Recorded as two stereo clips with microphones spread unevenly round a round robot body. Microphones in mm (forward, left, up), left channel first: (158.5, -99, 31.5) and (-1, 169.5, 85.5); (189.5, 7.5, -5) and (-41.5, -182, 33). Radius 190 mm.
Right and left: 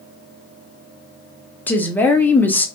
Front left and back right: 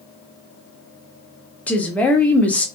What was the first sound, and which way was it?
A woman speaking, 15° right.